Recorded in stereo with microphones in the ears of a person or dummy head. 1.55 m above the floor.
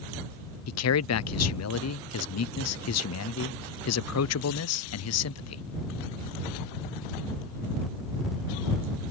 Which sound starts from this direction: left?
A man speaking, at 0.7 s.